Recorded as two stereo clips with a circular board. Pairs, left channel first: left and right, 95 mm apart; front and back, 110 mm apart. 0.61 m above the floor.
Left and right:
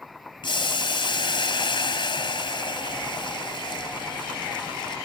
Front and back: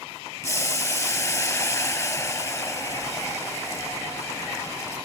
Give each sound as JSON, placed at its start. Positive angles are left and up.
{"t": 0.4, "sound": "boiling", "azimuth_deg": 65, "distance_m": 2.0}